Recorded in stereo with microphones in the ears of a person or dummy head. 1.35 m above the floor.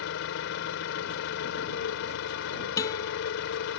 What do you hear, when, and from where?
0.0 s an engine running: 70° left (ahead or behind)
2.8 s a guitar: 20° left (ahead or behind)